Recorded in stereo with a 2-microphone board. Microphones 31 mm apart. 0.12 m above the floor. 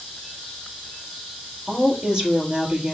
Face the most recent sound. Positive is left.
turn(degrees=-25)  # may be behind; listen again after turning